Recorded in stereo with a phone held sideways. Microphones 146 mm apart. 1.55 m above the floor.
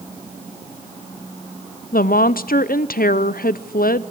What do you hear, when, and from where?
1.9 s a woman speaking: 80° left, 0.6 m